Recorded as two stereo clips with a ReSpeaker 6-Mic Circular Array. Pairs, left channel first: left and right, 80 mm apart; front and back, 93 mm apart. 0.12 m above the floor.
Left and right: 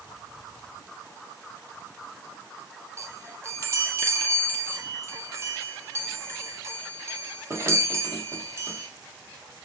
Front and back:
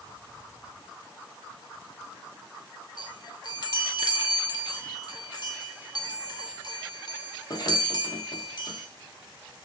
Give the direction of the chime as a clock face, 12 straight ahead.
1 o'clock.